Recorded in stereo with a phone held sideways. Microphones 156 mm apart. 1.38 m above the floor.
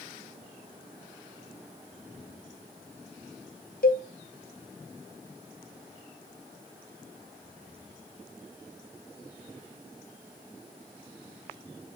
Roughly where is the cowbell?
Left.